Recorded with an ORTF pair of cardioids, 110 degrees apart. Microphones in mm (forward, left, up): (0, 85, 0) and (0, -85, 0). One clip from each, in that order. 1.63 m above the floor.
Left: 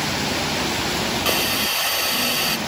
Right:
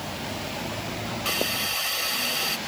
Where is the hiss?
30° left.